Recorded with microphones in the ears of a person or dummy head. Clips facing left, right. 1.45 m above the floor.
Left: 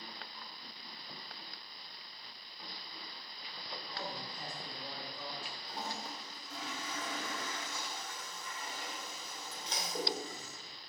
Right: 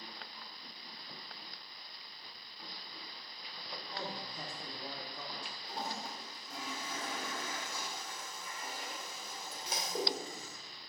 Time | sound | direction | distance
3.9 | a man speaking | 60° right (ahead or behind) | 3.5 m
5.6 | a toilet flushing | 10° right (ahead or behind) | 2.5 m